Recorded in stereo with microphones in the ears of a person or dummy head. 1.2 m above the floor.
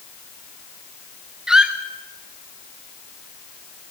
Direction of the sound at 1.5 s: 5° right (ahead or behind).